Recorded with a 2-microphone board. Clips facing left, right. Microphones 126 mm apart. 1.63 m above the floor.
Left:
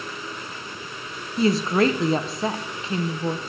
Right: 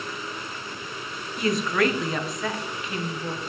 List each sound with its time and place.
1.4 s a woman speaking: 30° left (ahead or behind), 0.8 m